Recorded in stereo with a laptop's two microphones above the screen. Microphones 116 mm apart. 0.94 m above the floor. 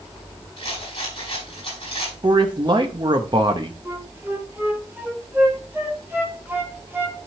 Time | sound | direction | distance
0.6 | a rattle | 50° left (ahead or behind) | 6.5 m
2.2 | a man speaking | 40° right (ahead or behind) | 0.8 m
3.9 | a flute | 20° right (ahead or behind) | 1.5 m